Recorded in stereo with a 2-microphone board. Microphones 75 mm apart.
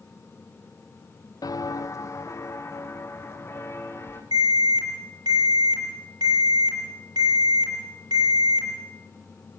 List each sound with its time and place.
1.4 s footsteps: 60° left (ahead or behind), 0.5 m; by 4.2 s 30° left (ahead or behind), 2.5 m
4.3 s an alarm: 70° right (ahead or behind), 6.5 m